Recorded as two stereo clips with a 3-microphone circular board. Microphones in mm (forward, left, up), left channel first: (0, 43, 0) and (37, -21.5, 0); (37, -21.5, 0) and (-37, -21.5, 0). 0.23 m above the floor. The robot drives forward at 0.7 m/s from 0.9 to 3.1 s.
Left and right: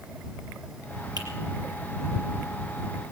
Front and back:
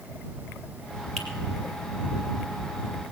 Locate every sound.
1.2 s a finger snap: 85° right, 4 m